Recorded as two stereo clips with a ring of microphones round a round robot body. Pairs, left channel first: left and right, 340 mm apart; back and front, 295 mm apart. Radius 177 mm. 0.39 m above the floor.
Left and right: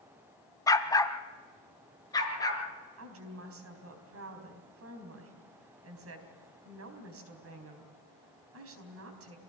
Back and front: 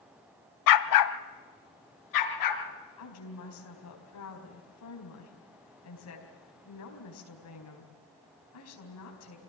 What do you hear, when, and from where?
0.7 s a dog barking: 170° left, 0.8 m
3.0 s a woman speaking: 140° right, 4 m